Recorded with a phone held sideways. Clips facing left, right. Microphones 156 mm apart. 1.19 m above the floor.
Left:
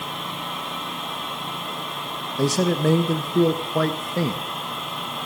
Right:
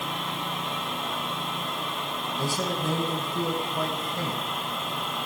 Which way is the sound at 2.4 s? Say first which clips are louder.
Left 10 dB; 85° left.